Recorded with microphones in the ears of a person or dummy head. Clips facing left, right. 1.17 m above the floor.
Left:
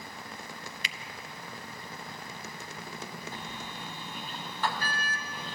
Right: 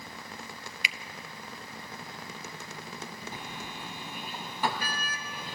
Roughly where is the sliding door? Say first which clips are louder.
Even; centre.